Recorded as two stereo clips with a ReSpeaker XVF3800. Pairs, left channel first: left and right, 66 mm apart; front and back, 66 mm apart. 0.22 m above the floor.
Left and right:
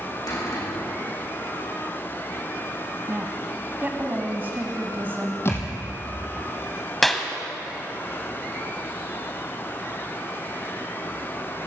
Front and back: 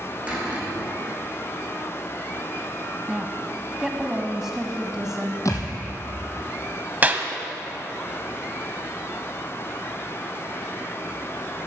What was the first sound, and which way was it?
A cupboard door, 110° left.